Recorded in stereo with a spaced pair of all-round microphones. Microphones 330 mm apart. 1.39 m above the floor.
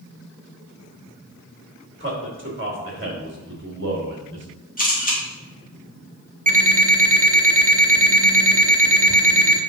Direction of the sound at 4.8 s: 25° left (ahead or behind).